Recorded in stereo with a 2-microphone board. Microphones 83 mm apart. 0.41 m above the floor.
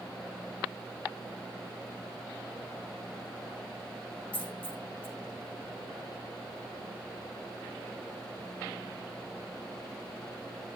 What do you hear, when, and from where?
4.3 s a dropped coin: 15° left (ahead or behind), 8.5 m